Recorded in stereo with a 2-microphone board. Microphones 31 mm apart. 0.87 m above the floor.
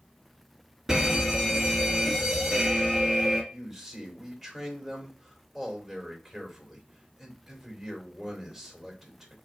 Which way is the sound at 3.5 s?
Centre (ahead or behind).